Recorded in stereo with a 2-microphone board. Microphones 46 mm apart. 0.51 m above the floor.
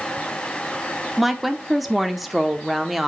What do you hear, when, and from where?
1.2 s a woman speaking: centre (ahead or behind), 0.8 m